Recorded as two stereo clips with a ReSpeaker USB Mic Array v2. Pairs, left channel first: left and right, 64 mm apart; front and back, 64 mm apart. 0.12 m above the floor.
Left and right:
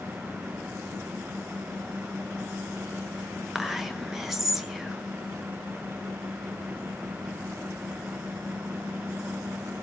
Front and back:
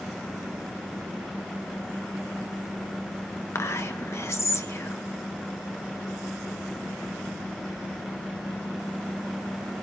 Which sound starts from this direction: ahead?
Whispering, at 3.5 s.